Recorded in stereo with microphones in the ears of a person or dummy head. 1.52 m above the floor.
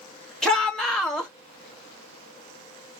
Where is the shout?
5° left (ahead or behind), 2 m.